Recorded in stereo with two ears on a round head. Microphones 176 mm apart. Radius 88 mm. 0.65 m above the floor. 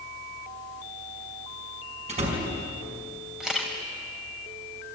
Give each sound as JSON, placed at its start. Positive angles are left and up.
{"t": 2.1, "sound": "a door slam", "side_deg": -35, "distance_m": 5.5}
{"t": 3.4, "sound": "a camera shutter", "side_deg": -5, "distance_m": 4.0}